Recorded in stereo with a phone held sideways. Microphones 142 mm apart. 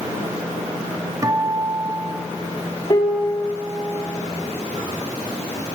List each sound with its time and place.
1.2 s a guitar: 25° right (ahead or behind), 1.7 m
2.9 s a piano: 35° left (ahead or behind), 2.5 m